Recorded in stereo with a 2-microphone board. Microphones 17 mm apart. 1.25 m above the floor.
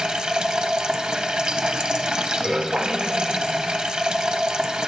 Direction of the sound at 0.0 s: 80° right.